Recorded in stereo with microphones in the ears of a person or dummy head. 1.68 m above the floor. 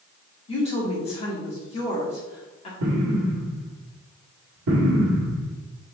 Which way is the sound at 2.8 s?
65° right (ahead or behind).